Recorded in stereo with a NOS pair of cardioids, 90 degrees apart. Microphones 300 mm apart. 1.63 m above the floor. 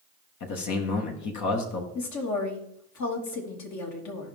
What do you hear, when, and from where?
0.4 s a man speaking: 70° left, 2 m
1.9 s a woman speaking: 65° left, 3 m